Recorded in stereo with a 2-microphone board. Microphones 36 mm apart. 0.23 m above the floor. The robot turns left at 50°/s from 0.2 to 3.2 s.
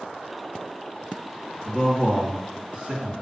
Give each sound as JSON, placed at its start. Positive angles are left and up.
{"t": 1.6, "sound": "a man speaking", "azimuth_deg": 35, "distance_m": 3.0}